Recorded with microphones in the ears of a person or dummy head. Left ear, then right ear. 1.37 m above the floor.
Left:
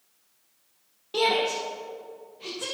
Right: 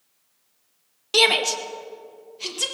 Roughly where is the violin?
No violin in this recording.